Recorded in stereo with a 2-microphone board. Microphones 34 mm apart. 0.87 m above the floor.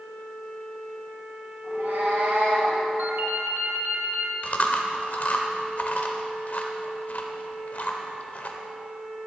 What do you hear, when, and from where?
1.6 s a cat meowing: 70° right (ahead or behind), 2.5 m
3.0 s a ringtone: 85° right, 0.9 m
4.4 s chewing: 55° left (ahead or behind), 0.8 m